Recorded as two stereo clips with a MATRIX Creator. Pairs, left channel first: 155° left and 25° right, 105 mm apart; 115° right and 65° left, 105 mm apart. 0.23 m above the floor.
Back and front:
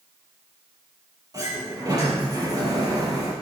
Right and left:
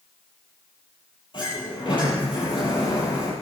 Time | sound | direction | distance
1.3 | a sliding door | 75° right | 6.5 m